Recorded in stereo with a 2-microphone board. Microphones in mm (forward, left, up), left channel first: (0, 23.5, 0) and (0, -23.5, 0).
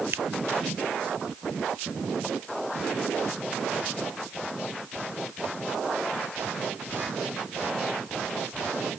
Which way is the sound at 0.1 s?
65° right (ahead or behind).